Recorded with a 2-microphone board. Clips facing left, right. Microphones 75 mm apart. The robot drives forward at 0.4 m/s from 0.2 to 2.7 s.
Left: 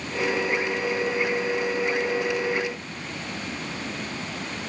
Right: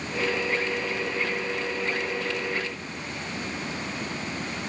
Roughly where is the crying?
No crying in this recording.